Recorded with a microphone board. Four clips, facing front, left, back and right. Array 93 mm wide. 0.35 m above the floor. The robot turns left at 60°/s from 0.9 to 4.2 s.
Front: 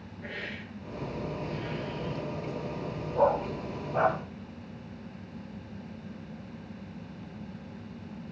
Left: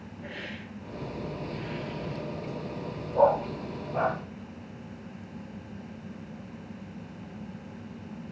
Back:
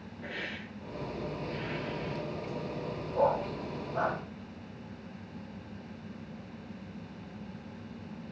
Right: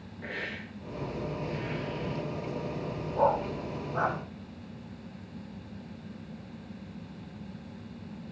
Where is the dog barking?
90° left, 2.5 m; by 4.2 s 30° left, 2.5 m.